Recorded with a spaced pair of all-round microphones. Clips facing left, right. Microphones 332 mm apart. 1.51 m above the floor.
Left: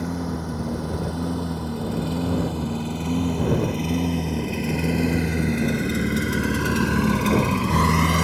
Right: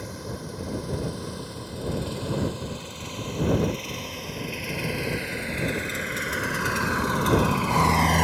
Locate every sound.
0.0 s a lawn mower: 65° left (ahead or behind); by 8.2 s 10° left (ahead or behind)